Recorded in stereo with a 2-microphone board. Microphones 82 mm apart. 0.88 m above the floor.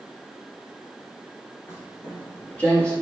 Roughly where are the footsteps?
Left.